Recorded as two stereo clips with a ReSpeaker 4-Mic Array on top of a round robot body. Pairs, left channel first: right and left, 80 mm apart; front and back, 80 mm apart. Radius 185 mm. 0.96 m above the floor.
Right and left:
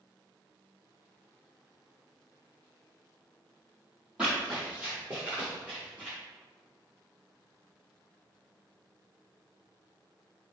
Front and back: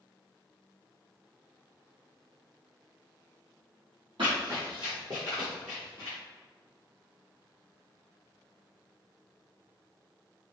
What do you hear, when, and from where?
4.2 s running footsteps: 170° left, 1.5 m; by 6.2 s straight ahead, 1.0 m